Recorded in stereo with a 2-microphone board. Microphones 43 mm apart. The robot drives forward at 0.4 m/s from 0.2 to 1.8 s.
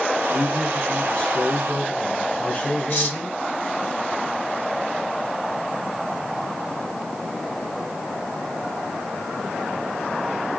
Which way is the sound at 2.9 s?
55° left (ahead or behind).